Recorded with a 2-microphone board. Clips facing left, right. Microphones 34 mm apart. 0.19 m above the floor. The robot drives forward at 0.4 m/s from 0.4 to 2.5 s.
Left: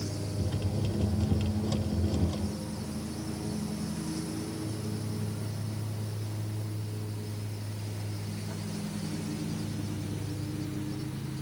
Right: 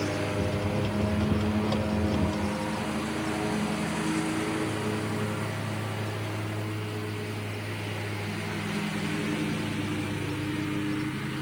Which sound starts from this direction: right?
A lawn mower, at 0.0 s.